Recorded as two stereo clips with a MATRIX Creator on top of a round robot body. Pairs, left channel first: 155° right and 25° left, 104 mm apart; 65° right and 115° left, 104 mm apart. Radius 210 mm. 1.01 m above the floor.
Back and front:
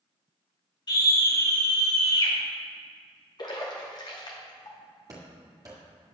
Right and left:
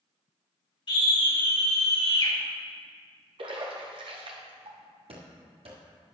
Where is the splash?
150° left, 1.1 m.